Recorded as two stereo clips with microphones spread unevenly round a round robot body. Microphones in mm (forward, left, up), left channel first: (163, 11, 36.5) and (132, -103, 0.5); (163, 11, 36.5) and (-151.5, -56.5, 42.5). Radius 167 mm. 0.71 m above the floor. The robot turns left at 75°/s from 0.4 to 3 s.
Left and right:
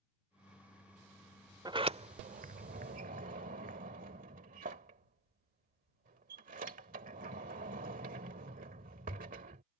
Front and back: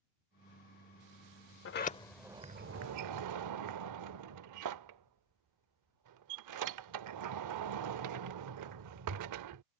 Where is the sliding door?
35° right; by 9.6 s 140° right.